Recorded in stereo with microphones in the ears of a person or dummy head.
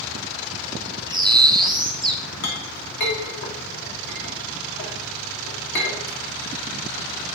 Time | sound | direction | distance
1.1 | a bird | 20° right (ahead or behind) | 0.7 m
2.4 | a clink | 55° left (ahead or behind) | 1.7 m